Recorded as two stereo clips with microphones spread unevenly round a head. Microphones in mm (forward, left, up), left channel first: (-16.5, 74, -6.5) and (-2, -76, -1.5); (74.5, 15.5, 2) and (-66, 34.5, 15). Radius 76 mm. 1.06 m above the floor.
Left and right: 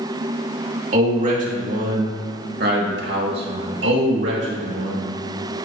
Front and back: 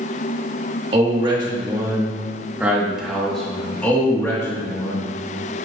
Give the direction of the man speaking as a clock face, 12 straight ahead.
4 o'clock.